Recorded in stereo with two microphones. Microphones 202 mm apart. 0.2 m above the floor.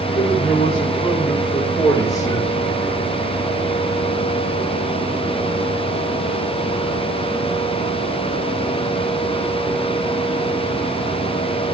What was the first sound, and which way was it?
A man speaking, 35° left (ahead or behind).